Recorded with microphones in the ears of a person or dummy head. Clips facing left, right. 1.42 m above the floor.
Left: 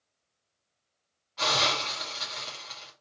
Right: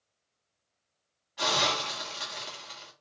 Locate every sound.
1.4 s a hiss: 20° right (ahead or behind), 2.5 m